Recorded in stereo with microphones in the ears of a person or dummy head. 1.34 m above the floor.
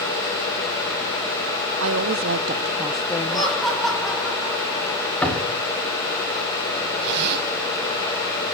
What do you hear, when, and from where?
1.8 s a woman speaking: 70° right (ahead or behind), 0.9 m; by 3.7 s 35° left (ahead or behind), 0.9 m
3.3 s laughter: centre (ahead or behind), 5 m
5.2 s a door slam: 5° left (ahead or behind), 4 m
7.0 s a zipper: 65° right (ahead or behind), 4.5 m